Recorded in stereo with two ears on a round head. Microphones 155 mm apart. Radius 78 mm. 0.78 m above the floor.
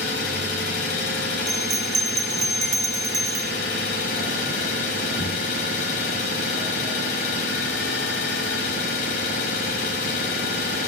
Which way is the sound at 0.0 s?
60° left (ahead or behind).